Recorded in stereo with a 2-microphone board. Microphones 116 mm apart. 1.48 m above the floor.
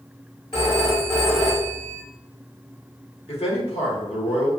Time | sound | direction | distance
0.5 | a phone ringing | 50° left (ahead or behind) | 2.0 m
3.3 | a man speaking | 60° left (ahead or behind) | 1.4 m